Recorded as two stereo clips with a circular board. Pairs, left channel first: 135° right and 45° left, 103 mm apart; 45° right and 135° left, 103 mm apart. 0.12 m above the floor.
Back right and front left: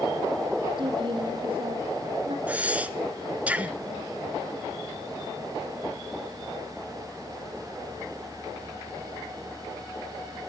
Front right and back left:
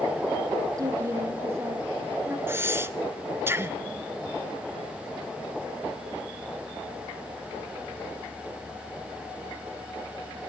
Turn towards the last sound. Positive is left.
turn(degrees=105)